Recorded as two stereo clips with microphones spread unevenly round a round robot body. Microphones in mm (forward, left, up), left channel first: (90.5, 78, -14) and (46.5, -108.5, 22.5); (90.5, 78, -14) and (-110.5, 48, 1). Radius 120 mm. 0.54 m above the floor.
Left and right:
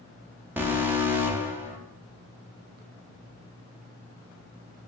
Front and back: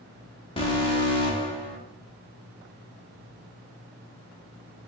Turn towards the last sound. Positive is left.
turn(degrees=-10)